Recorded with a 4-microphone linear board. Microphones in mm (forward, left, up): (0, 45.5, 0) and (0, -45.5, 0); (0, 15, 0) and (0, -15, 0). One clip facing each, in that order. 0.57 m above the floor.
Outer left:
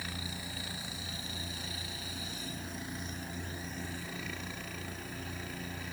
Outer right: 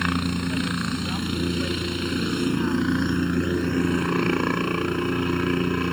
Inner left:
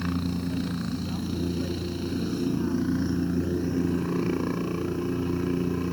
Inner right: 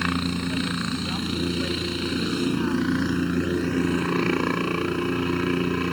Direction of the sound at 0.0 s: 70° right (ahead or behind).